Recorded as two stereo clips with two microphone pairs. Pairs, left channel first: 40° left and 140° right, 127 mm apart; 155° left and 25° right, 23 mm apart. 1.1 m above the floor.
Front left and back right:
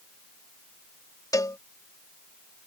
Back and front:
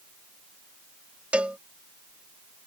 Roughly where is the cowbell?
Ahead right.